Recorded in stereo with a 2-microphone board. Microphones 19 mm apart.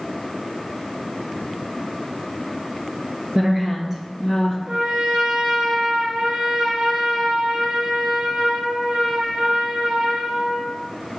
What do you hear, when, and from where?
3.4 s a woman speaking: 35° right (ahead or behind), 2 m; by 4.6 s 5° right (ahead or behind), 2 m
4.7 s a trumpet: 50° right (ahead or behind), 1.8 m